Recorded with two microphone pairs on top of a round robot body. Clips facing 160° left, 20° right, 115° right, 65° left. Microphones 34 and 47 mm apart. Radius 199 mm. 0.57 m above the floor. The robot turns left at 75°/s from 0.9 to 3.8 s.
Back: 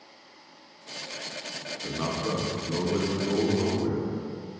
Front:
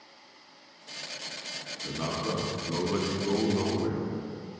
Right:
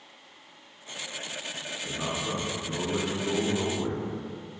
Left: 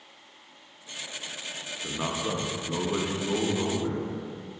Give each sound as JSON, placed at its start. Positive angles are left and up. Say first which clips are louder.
{"t": 1.8, "sound": "a man speaking", "louder": "back 2 dB, left 2 dB", "azimuth_deg": 100, "distance_m": 0.8}